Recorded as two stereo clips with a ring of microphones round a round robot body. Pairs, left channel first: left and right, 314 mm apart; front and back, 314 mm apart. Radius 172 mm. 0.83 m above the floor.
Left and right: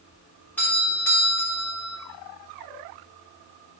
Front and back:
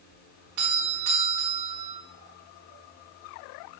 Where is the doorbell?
175° left, 3.5 m.